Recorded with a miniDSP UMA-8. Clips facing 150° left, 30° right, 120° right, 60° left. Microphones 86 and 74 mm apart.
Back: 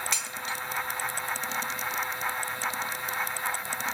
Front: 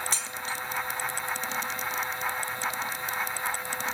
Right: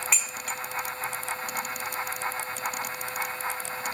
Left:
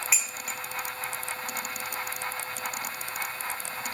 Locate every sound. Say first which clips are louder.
0.1 s dishes clattering: even, right 1 dB; 20° right, 1.1 m